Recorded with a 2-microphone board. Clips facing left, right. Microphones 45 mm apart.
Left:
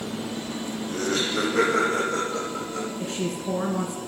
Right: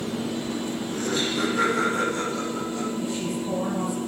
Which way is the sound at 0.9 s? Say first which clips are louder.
Left 2 dB; 70° left (ahead or behind).